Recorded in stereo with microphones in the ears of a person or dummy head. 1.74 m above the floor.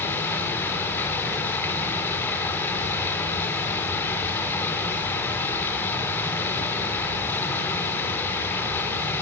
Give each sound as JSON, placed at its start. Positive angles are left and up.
{"t": 0.0, "sound": "running water", "side_deg": 10, "distance_m": 5.0}